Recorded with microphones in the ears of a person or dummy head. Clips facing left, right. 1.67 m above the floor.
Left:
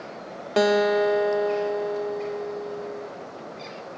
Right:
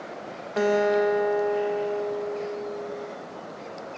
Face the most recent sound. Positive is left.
turn(degrees=50)  # may be behind; listen again after turning